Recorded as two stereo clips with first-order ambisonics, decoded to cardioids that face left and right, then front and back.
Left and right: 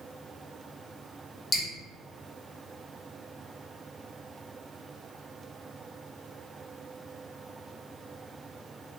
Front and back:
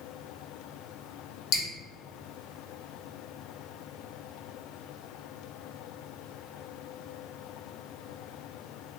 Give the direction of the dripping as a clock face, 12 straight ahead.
11 o'clock.